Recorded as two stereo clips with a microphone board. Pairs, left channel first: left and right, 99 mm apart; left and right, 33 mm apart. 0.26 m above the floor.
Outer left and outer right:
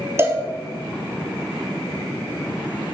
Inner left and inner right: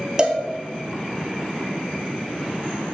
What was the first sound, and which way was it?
A cowbell, 25° right (ahead or behind).